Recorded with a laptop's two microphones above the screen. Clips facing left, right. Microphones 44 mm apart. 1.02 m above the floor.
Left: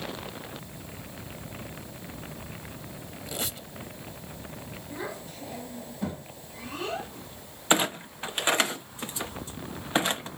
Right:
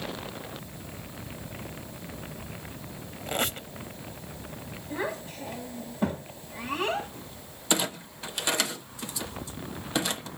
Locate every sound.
3.3 s a squeak: 45° right (ahead or behind), 0.9 m
4.9 s a child speaking: 40° right (ahead or behind), 4 m
7.7 s a clunk: 35° left (ahead or behind), 0.7 m